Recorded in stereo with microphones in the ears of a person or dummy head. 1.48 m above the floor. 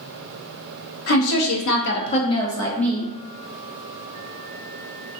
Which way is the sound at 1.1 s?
75° left (ahead or behind).